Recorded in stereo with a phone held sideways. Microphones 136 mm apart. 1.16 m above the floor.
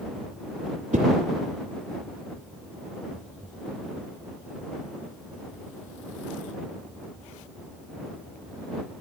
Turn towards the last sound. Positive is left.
turn(degrees=-70)  # may be behind; listen again after turning